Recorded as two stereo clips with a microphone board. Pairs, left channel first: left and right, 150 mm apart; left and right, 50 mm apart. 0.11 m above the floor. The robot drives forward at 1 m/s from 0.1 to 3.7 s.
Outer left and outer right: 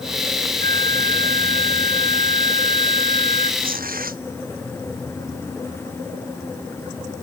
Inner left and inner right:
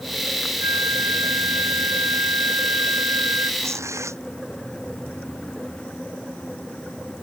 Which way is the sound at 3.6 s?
75° right (ahead or behind).